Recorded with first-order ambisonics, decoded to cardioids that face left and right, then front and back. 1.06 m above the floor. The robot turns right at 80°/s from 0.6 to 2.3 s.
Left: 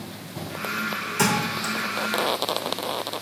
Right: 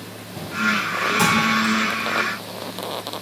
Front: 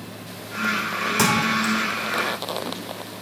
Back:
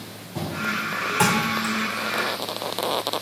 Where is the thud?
5° left, 4 m; by 1.7 s 50° left, 4 m.